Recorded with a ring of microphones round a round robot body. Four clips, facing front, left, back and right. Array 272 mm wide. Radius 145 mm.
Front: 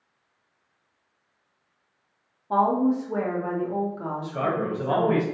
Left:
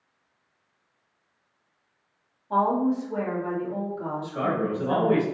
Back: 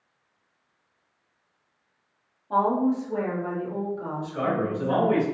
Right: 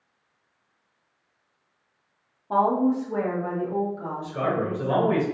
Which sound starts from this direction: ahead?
A man speaking, at 4.2 s.